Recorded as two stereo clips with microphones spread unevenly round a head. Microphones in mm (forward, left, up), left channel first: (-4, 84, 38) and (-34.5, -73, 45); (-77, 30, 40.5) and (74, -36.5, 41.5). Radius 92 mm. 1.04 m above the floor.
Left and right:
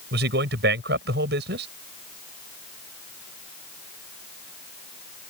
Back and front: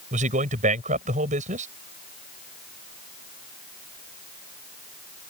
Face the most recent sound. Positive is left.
turn(degrees=-70)